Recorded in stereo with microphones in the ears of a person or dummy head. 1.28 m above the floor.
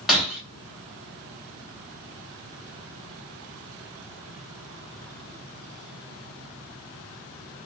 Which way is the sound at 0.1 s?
5° right (ahead or behind).